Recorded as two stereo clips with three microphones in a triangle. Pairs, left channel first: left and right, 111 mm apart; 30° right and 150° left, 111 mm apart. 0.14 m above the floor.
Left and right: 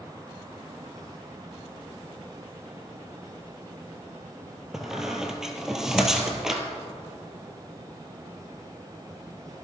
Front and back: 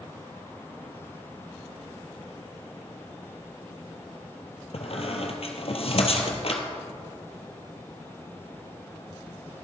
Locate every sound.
4.7 s a squeak: 5° right, 1.5 m